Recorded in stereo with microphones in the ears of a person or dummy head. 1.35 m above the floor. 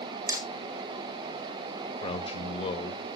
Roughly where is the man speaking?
Left.